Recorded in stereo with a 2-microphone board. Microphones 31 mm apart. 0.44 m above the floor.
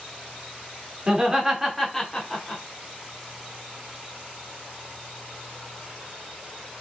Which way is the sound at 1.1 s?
25° right (ahead or behind).